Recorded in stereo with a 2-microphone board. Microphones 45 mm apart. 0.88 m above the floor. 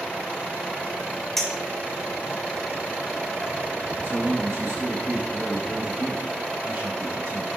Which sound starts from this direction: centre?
A clink, at 1.4 s.